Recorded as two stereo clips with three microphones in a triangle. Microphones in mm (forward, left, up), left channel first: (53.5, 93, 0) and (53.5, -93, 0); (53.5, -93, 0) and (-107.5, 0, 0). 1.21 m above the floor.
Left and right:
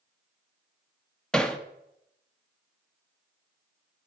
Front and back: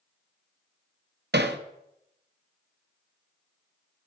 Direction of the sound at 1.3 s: 175° left.